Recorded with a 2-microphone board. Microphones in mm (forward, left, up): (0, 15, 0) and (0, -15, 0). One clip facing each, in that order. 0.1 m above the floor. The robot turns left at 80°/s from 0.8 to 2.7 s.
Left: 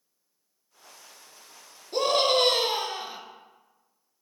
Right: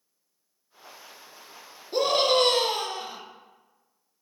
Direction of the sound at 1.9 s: 10° right (ahead or behind).